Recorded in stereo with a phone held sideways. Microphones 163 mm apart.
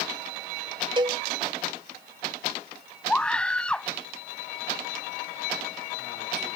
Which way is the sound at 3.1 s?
5° left (ahead or behind).